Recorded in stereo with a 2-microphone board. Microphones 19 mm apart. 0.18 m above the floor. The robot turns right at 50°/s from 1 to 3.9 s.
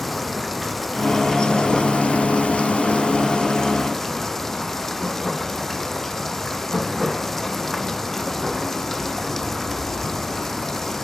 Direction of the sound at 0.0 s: 10° left.